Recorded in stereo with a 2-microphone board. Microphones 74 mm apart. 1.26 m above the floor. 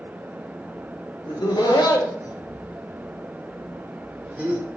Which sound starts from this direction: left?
Laughter, at 1.2 s.